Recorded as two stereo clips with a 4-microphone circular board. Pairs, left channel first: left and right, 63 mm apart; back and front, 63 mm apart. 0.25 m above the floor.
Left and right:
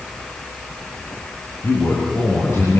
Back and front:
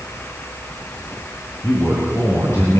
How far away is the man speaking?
About 6 m.